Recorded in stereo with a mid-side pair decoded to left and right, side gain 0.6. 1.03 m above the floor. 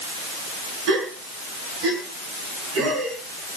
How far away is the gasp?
About 6 m.